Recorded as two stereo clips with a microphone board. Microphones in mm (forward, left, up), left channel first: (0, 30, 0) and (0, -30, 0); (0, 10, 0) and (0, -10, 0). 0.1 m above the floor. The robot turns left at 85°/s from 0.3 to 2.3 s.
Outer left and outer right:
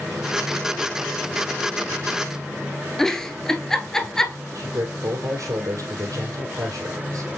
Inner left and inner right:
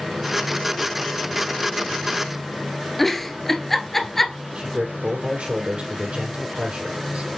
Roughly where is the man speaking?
Right.